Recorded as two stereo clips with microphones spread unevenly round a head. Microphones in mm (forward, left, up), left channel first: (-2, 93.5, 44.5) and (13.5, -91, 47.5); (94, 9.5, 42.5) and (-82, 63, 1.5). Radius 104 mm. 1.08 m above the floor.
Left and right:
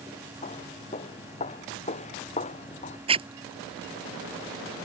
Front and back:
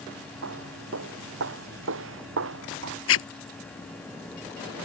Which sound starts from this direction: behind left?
Footsteps, at 0.4 s.